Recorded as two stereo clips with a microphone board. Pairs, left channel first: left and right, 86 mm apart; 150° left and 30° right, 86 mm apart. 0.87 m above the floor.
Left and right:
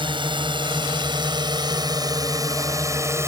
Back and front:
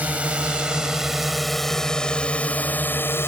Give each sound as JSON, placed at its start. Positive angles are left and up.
{"t": 0.0, "sound": "a drone", "azimuth_deg": -105}